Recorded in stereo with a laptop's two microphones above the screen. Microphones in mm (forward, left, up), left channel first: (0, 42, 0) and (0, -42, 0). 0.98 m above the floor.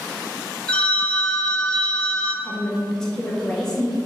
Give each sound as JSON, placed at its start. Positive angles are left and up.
{"t": 0.7, "sound": "a phone ringing", "side_deg": 15, "distance_m": 0.7}
{"t": 2.4, "sound": "a woman speaking", "side_deg": 10, "distance_m": 1.4}